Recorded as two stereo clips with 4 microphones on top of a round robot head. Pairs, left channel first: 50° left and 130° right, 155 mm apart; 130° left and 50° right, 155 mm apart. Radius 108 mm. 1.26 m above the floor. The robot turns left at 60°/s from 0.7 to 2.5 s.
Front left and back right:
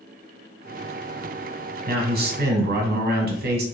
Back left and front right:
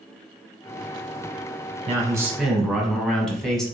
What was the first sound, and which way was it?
A man speaking, 105° right.